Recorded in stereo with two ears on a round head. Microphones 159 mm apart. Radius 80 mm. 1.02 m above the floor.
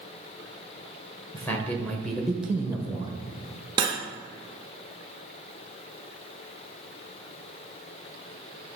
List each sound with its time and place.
1.3 s a man speaking: 10° left (ahead or behind), 1.1 m; by 3.2 s 20° right (ahead or behind), 0.8 m
3.8 s cutlery clinking: 25° right (ahead or behind), 0.7 m